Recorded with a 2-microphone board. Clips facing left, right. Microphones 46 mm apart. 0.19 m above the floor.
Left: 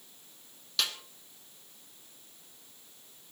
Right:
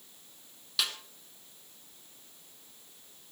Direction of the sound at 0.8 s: 5° right (ahead or behind).